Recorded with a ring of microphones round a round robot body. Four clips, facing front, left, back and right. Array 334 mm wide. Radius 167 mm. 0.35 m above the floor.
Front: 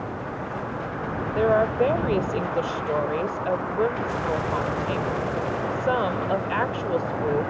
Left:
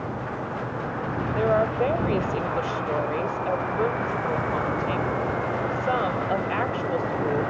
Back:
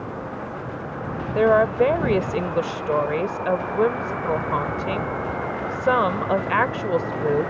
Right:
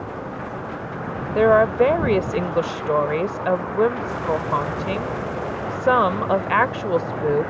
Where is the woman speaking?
115° right.